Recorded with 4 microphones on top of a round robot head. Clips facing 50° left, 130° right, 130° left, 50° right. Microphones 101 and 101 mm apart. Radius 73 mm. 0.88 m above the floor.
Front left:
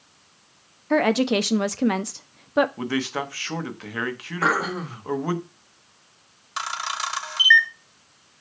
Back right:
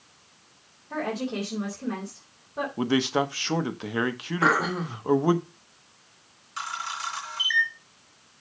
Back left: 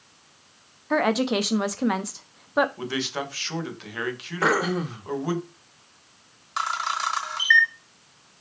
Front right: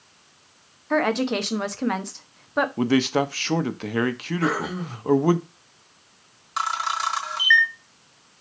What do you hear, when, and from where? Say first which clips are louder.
0.9 s a woman speaking: front left 10 dB, even; 45° left, 0.8 m
2.8 s a man speaking: back right 3 dB, front right 9 dB; 65° right, 1.0 m
4.4 s throat clearing: even, back left 3 dB; 140° left, 1.5 m
6.6 s a camera shutter: front left 4 dB, front right 2 dB; 40° left, 1.2 m